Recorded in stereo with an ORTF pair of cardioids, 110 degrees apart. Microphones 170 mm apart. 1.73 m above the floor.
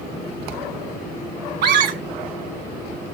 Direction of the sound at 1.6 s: 70° right.